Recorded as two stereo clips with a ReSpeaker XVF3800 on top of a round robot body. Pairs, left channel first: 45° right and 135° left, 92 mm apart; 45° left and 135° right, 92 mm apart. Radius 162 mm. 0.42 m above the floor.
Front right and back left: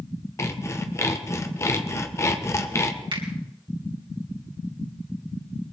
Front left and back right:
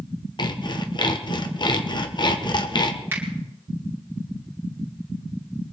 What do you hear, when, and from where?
0.4 s sawing: 15° left, 1.4 m
3.1 s a finger snap: 160° left, 4 m